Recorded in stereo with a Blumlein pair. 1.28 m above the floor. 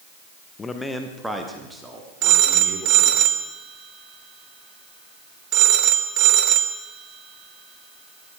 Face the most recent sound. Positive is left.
turn(degrees=-40)